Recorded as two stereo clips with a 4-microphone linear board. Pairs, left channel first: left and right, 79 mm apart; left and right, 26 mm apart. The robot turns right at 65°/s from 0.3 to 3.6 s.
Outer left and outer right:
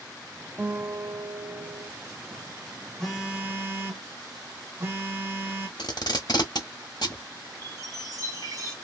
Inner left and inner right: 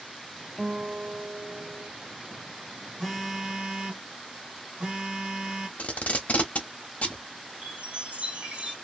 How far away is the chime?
About 1.3 m.